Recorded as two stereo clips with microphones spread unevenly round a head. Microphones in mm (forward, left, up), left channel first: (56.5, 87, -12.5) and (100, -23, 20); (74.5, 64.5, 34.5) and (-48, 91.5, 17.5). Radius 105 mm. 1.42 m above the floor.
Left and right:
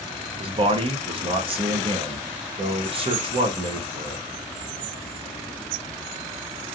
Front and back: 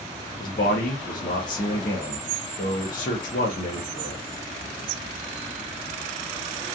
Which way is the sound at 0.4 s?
35° right.